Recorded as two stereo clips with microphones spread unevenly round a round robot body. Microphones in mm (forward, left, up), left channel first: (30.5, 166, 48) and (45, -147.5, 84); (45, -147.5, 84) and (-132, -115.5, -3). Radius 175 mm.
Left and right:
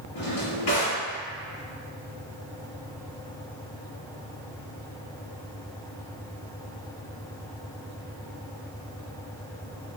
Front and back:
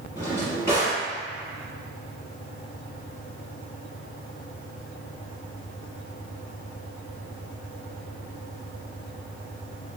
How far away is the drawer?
About 1.9 m.